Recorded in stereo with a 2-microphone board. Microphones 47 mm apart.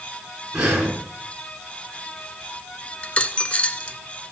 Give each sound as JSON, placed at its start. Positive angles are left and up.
{"t": 0.5, "sound": "breathing", "side_deg": -15, "distance_m": 6.5}
{"t": 3.0, "sound": "a dropped coin", "side_deg": 35, "distance_m": 1.9}